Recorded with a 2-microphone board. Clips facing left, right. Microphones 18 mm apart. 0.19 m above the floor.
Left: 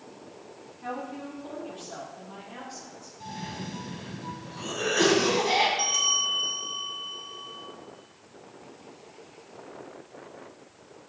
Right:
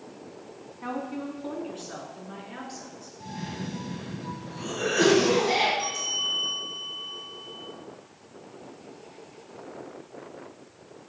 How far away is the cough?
About 1.3 m.